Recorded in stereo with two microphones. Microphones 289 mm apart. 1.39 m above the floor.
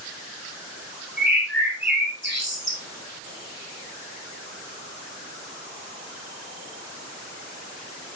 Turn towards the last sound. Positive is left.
turn(degrees=-40)  # may be behind; listen again after turning